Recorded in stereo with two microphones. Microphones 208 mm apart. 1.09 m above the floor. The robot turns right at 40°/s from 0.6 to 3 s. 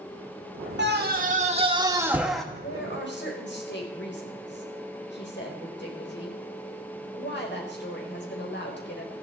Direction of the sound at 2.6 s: 75° left (ahead or behind).